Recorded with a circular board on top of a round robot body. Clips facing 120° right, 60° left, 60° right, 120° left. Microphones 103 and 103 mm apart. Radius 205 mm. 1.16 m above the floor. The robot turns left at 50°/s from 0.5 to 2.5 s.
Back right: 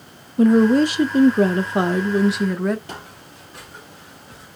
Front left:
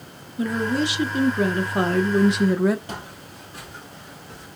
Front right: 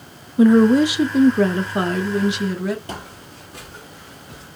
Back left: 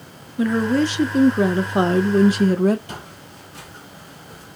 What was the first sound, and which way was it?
A woman speaking, 115° right.